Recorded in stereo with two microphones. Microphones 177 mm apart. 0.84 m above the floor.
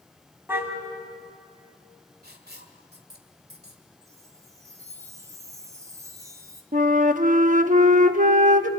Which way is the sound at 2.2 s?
65° right (ahead or behind).